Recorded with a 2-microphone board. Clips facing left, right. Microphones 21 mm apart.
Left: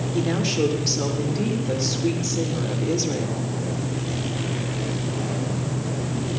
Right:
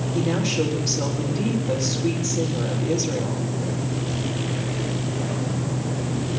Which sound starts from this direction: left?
A woman speaking, at 0.1 s.